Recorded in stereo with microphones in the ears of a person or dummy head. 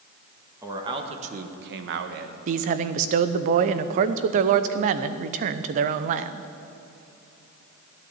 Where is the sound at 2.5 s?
45° right (ahead or behind), 0.6 m.